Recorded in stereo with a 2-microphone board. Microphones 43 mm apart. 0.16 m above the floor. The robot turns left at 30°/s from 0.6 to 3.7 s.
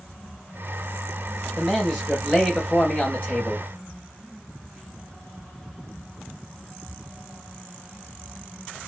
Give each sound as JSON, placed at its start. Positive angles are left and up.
{"t": 1.6, "sound": "a man speaking", "azimuth_deg": -170, "distance_m": 2.5}